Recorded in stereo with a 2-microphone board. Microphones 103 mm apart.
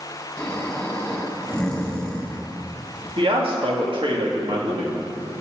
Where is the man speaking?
60° right (ahead or behind), 2.5 m.